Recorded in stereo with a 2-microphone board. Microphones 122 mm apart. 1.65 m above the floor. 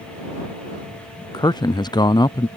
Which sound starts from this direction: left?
A man speaking, at 1.3 s.